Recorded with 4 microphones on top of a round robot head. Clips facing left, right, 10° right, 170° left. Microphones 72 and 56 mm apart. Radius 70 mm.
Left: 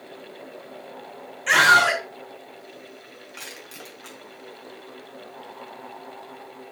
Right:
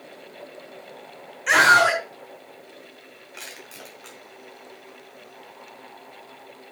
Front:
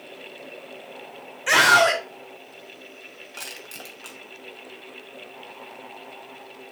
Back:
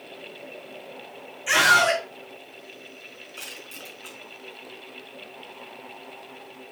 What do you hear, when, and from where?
1.5 s a scream: 10° right, 1.4 m
3.3 s crushing: straight ahead, 2.5 m